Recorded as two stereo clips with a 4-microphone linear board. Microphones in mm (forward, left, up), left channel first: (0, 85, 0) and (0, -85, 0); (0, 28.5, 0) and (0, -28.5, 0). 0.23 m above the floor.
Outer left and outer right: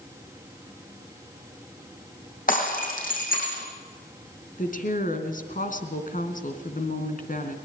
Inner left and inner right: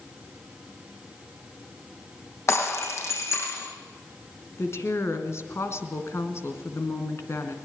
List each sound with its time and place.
2.5 s breaking glass: 55° left (ahead or behind), 5.5 m
4.6 s a woman speaking: 55° left (ahead or behind), 3 m